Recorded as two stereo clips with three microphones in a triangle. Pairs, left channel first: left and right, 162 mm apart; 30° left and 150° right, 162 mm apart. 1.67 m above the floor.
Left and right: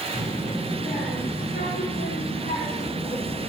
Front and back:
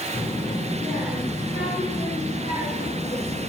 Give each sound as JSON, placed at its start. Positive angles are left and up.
{"t": 0.1, "sound": "a child speaking", "azimuth_deg": 100, "distance_m": 4.5}